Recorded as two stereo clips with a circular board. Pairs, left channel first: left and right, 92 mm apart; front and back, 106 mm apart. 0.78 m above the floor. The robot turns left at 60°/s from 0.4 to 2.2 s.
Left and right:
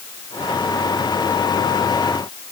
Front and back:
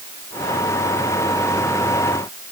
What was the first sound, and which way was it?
Only background noise.